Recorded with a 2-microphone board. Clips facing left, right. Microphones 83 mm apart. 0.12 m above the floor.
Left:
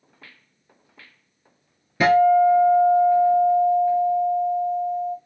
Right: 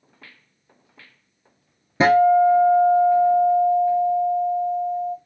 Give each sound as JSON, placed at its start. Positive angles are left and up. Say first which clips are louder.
{"t": 2.0, "sound": "a guitar", "louder": "right 1 dB", "side_deg": -25, "distance_m": 0.6}